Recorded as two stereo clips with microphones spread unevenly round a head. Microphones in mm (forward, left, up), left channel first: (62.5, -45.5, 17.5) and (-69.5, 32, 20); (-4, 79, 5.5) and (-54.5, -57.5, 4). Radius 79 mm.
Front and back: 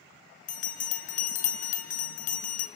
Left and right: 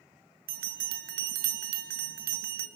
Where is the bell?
70° right, 2.5 m.